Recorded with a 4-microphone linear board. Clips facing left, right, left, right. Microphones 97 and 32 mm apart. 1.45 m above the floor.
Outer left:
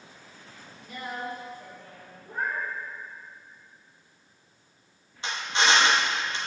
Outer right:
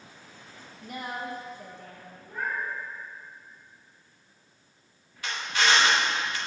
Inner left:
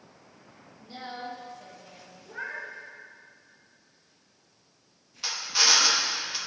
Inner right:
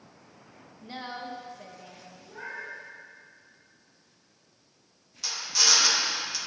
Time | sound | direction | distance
0.8 | a woman speaking | 55° right (ahead or behind) | 1.2 m
2.3 | a cat meowing | 40° left (ahead or behind) | 1.9 m
5.2 | a drill | 25° left (ahead or behind) | 1.0 m